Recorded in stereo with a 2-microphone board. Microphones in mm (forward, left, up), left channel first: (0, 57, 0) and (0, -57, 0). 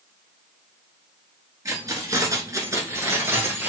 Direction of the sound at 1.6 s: 30° right (ahead or behind).